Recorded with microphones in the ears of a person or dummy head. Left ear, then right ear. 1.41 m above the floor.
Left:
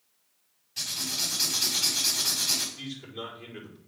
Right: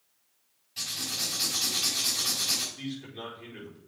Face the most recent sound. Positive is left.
turn(degrees=5)  # may be behind; listen again after turning